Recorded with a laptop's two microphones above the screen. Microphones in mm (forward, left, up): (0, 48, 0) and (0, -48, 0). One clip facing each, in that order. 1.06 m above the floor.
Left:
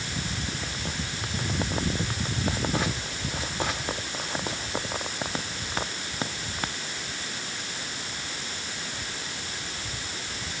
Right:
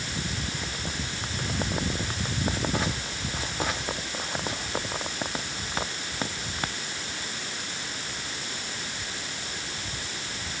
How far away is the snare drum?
No snare drum in this recording.